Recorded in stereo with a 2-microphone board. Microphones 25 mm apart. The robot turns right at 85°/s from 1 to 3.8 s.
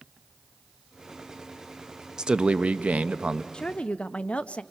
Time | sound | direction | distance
2.2 | a man speaking | 150° right | 0.6 m
3.5 | a woman speaking | 30° left (ahead or behind) | 0.5 m